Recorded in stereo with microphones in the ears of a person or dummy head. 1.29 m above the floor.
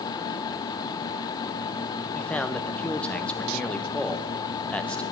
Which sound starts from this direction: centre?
A man speaking, at 2.1 s.